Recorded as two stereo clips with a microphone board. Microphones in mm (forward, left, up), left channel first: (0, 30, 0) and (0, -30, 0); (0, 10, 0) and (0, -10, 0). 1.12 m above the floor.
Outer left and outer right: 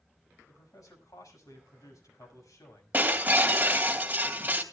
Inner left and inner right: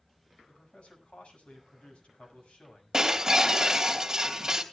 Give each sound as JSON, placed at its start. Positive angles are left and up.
{"t": 0.5, "sound": "a man speaking", "side_deg": 85, "distance_m": 6.0}
{"t": 2.9, "sound": "breaking glass", "side_deg": -30, "distance_m": 2.5}